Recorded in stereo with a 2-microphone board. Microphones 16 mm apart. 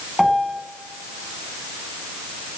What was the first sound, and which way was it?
A piano, centre (ahead or behind).